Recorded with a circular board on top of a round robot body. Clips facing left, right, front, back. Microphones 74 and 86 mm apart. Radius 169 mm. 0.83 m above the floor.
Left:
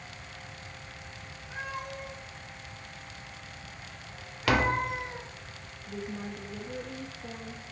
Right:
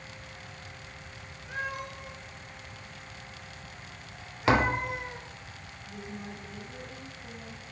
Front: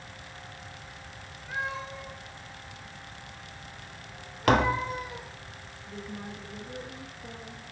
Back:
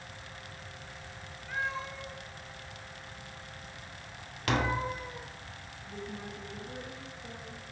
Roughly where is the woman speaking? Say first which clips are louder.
Left 4 dB, front 2 dB; left.